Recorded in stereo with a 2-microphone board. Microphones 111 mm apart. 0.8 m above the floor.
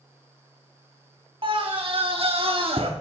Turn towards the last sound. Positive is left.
turn(degrees=-60)  # may be behind; listen again after turning